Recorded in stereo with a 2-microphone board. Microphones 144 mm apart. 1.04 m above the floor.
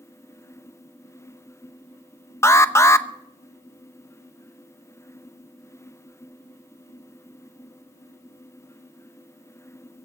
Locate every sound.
2.4 s an alarm: 20° left (ahead or behind), 0.8 m